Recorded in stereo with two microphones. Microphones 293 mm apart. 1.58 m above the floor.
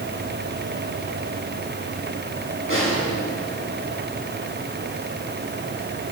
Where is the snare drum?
50° left (ahead or behind), 9 m.